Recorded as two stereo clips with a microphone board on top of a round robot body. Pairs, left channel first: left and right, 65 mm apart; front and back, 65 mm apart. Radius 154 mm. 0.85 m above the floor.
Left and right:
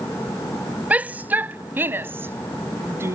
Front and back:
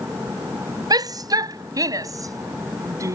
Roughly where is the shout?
Behind.